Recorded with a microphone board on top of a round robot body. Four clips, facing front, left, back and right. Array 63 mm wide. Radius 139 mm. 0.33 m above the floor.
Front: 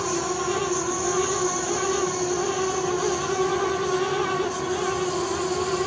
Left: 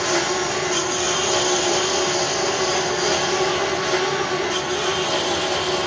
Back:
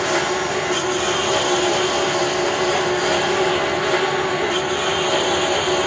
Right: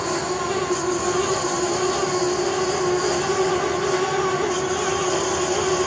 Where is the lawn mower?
160° left; by 5.9 s 170° left.